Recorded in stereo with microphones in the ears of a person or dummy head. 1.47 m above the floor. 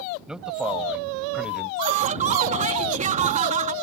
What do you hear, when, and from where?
0.3 s a man speaking: 5° right (ahead or behind); by 1.7 s 10° right (ahead or behind)
1.8 s laughter: 40° right (ahead or behind)